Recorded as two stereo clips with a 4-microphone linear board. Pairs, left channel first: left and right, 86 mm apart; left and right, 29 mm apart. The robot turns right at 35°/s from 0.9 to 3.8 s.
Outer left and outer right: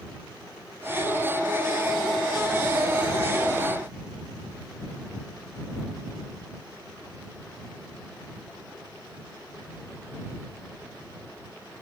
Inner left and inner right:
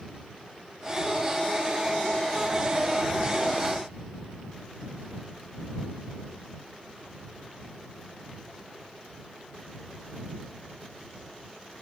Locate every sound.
Only background noise.